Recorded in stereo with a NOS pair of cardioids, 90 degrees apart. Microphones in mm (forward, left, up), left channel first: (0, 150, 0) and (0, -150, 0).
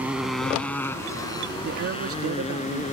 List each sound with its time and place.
0.0 s a motorcycle: 5° right; by 2.9 s 25° left
1.6 s a man speaking: 50° right